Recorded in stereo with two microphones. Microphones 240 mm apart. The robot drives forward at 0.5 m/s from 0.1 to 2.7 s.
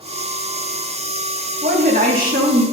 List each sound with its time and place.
1.6 s a woman speaking: 40° right (ahead or behind), 1.8 m; by 2.6 s 30° right (ahead or behind), 2 m